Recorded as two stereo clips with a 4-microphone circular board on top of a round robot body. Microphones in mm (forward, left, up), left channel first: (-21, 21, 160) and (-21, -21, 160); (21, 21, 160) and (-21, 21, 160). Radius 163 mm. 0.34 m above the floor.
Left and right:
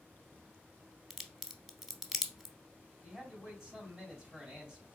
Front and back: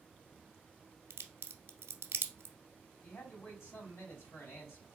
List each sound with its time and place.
1.1 s a crack: straight behind, 0.6 m
3.0 s a man speaking: 10° right, 3 m